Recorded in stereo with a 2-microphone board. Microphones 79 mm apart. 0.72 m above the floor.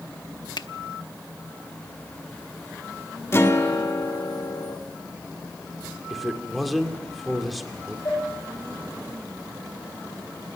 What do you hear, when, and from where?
0.6 s a finger snap: 65° left (ahead or behind), 0.8 m
3.3 s a guitar: 35° left (ahead or behind), 2 m
6.1 s a man speaking: centre (ahead or behind), 2 m
8.1 s dishes clattering: 45° left (ahead or behind), 9 m